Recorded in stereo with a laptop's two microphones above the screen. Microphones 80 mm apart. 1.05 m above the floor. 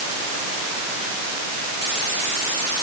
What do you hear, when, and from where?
Only background noise.